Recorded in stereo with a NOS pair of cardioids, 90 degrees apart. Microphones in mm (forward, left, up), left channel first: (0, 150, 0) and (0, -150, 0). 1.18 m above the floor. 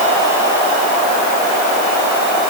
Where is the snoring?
I don't hear snoring.